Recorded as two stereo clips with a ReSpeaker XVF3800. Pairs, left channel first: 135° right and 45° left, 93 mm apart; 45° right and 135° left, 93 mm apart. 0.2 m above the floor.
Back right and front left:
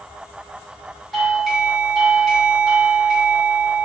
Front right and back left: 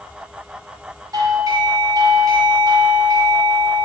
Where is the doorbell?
135° left, 1.7 m.